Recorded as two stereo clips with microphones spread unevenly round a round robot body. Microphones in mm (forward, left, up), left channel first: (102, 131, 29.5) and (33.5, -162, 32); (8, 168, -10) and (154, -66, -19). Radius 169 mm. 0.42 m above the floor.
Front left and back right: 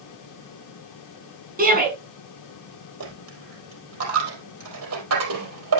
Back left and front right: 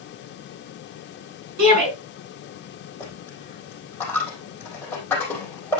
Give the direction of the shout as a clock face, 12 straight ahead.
1 o'clock.